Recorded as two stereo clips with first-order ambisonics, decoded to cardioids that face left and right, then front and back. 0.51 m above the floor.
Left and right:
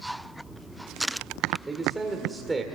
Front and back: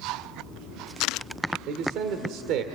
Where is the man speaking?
170° right, 1.8 m.